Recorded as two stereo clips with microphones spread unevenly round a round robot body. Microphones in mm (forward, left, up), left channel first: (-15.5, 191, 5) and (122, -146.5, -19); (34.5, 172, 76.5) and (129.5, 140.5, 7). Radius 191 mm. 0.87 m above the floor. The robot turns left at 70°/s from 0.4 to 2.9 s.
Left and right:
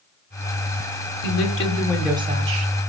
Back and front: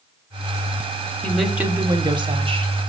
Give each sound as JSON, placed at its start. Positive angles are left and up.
{"t": 1.2, "sound": "a woman speaking", "azimuth_deg": 75, "distance_m": 2.0}